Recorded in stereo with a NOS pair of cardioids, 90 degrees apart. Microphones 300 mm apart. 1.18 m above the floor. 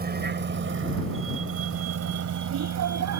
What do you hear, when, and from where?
0.0 s a vehicle: 30° right; by 3.2 s 65° right